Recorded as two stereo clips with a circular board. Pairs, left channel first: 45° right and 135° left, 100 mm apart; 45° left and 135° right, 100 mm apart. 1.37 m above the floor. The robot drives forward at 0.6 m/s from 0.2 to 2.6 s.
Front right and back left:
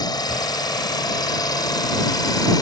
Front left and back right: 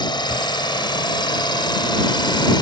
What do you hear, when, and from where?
0.0 s an engine running: 5° left